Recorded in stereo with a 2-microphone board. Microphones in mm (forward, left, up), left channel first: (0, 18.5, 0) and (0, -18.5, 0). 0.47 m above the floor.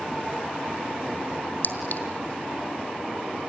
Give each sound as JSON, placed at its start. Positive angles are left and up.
{"t": 1.6, "sound": "a clink", "side_deg": 60, "distance_m": 2.0}